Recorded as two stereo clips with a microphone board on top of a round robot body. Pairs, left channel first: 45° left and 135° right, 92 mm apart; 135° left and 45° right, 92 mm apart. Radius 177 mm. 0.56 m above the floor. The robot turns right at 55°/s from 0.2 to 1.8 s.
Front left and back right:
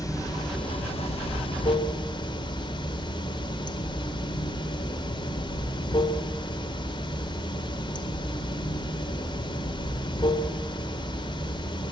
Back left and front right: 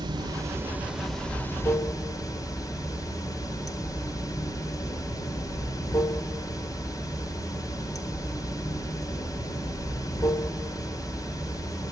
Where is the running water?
5° right, 2 m; by 11.9 s 85° left, 2 m.